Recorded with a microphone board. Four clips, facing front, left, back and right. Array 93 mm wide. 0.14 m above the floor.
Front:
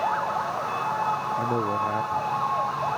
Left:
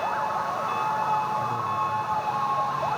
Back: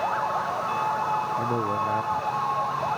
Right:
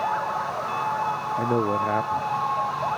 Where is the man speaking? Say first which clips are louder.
Right 3 dB, front 1 dB; 90° right.